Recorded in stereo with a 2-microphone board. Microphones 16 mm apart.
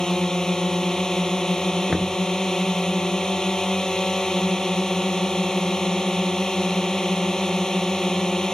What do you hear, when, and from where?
0.0 s a drone: 40° left (ahead or behind)
1.9 s knocking: 25° right (ahead or behind)